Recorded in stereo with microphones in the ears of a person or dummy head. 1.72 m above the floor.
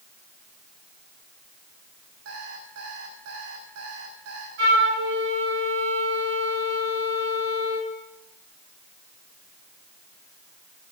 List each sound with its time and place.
2.2 s an alarm clock: 75° right (ahead or behind), 5.5 m
4.6 s a flute: 65° right (ahead or behind), 6.5 m